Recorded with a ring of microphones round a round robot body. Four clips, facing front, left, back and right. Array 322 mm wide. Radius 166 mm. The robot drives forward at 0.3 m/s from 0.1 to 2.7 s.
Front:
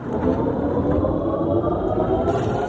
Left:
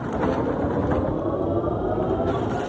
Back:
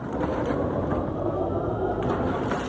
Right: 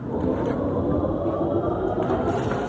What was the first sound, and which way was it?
Only background noise.